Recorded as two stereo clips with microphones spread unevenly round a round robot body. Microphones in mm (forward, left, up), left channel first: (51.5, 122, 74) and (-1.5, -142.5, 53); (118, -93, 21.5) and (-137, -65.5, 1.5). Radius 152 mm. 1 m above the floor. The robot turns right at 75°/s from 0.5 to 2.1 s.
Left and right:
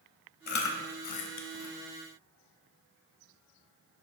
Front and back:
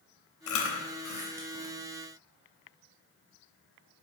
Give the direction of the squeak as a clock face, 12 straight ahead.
No squeak in this recording.